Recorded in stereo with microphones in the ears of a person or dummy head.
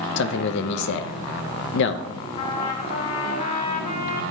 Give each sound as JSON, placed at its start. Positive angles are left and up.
{"t": 0.2, "sound": "a man speaking", "side_deg": 65, "distance_m": 0.6}
{"t": 2.4, "sound": "a trumpet", "side_deg": 40, "distance_m": 1.1}